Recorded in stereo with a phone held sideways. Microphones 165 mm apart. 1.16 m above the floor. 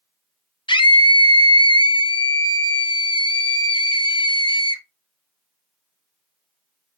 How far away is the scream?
About 0.7 m.